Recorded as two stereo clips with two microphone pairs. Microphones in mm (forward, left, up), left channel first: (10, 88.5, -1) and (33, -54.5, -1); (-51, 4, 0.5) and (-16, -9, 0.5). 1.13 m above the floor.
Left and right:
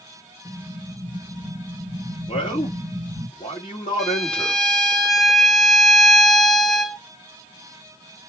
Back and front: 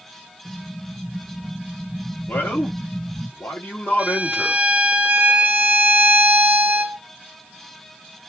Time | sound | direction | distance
0.5 | an explosion | 140° left | 1.5 m
2.3 | a man speaking | 150° left | 1.6 m
4.0 | a violin | 10° left | 0.6 m